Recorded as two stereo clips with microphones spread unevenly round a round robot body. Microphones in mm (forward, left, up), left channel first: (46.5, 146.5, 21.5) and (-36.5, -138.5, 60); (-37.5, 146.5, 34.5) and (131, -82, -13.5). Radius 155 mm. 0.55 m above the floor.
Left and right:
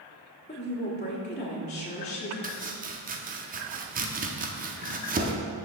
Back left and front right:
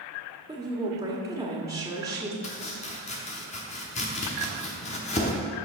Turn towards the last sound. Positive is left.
turn(degrees=-165)